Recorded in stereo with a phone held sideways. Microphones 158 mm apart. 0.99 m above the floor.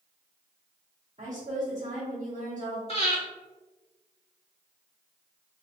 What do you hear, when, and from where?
1.2 s a woman speaking: 55° right (ahead or behind), 1.2 m
2.9 s breathing: 45° left (ahead or behind), 1.0 m